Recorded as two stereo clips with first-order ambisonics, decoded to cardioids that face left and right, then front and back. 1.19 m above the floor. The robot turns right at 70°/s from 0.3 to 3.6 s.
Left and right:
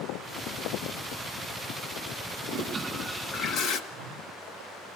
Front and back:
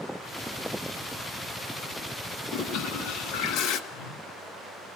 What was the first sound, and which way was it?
A toilet flushing, 40° right.